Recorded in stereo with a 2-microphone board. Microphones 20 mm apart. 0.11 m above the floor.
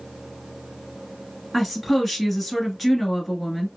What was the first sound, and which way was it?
A woman speaking, 5° right (ahead or behind).